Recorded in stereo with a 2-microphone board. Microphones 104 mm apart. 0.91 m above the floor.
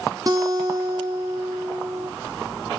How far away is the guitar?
About 1.0 m.